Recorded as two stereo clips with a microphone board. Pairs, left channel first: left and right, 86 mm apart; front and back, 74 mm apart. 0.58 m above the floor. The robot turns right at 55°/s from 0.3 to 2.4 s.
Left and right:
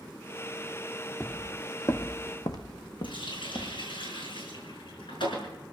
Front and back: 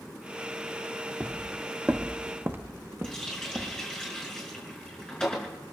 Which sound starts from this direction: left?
A running tap, at 3.0 s.